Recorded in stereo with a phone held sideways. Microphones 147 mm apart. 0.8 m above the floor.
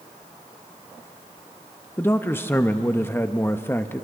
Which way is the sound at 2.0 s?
15° left (ahead or behind).